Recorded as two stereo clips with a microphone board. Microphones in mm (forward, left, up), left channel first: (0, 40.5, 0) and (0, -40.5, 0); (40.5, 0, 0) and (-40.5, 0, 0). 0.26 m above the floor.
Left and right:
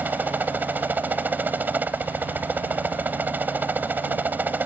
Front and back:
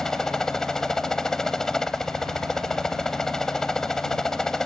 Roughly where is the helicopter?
Right.